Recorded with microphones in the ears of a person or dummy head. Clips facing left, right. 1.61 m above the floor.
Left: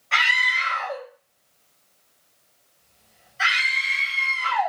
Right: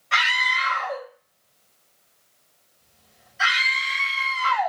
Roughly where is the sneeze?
No sneeze in this recording.